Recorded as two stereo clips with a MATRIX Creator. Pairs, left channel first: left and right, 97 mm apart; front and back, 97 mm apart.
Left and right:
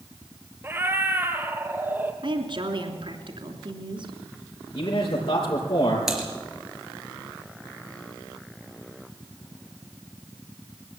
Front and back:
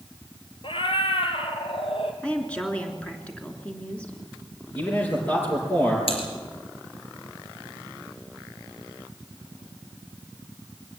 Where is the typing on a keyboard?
5° right, 4 m.